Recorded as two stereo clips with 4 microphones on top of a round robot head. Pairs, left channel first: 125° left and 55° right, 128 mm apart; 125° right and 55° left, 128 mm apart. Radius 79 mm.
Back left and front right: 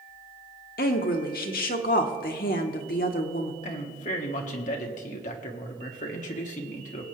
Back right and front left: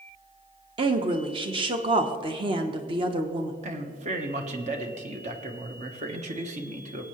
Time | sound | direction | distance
0.8 | a woman speaking | 105° left | 1.2 m
3.6 | a man speaking | 90° left | 1.7 m